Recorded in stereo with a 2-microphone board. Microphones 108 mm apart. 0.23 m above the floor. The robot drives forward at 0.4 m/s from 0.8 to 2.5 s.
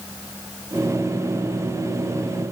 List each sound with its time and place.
Only background noise.